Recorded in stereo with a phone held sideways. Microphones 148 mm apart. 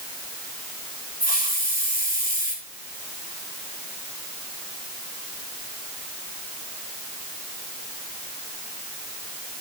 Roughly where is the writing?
I don't hear writing.